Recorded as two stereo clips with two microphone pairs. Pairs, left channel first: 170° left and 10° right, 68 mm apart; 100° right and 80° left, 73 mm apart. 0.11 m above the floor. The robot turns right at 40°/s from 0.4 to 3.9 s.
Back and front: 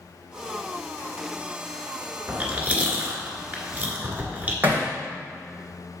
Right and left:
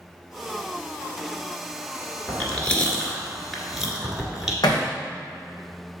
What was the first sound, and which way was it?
Chewing, 60° right.